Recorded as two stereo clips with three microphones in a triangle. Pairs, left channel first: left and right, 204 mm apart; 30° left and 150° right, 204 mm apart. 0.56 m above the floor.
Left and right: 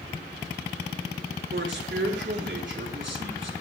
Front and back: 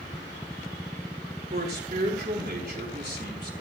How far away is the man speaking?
About 4 m.